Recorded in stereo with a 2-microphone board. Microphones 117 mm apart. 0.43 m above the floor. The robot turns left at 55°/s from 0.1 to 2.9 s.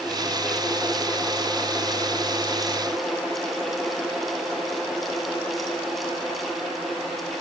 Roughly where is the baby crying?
No baby crying in this recording.